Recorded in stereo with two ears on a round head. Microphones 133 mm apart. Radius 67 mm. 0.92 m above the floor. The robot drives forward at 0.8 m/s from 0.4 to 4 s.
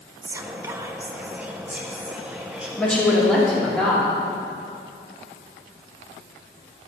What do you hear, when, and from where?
0.2 s whispering: 20° right (ahead or behind), 0.6 m; by 2.7 s 5° right (ahead or behind), 1.9 m
2.8 s a woman speaking: 10° left (ahead or behind), 2 m; by 4.1 s 5° left (ahead or behind), 3 m